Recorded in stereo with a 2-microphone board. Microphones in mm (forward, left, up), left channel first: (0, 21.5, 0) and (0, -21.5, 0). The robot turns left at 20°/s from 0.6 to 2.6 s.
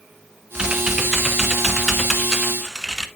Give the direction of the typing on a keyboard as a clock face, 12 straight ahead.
5 o'clock.